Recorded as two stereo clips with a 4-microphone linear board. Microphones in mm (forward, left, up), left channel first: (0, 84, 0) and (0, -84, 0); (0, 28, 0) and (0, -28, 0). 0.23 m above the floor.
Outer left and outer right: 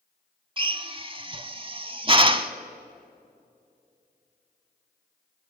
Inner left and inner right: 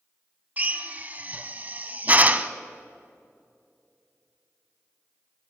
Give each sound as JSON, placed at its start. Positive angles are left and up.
{"t": 0.6, "sound": "a drill", "side_deg": -30, "distance_m": 0.6}